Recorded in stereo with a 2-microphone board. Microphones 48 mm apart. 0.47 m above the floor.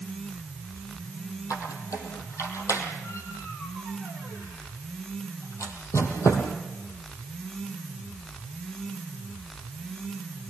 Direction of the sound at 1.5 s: 85° left.